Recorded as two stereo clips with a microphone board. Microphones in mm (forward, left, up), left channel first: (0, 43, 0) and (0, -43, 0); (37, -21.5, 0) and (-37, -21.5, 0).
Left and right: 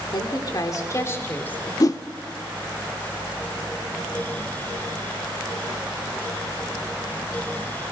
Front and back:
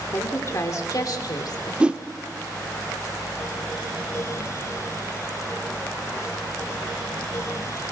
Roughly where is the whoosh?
Left.